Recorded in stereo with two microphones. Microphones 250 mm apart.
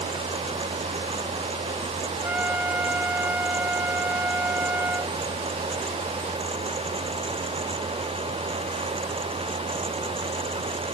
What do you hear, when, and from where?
2.2 s a trumpet: 5° right (ahead or behind)